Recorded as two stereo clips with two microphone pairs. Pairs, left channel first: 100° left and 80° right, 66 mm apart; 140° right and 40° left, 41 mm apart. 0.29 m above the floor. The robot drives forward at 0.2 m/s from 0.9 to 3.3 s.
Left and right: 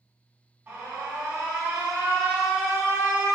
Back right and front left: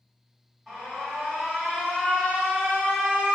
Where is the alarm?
55° right, 1.5 m; by 3.4 s 95° right, 1.4 m.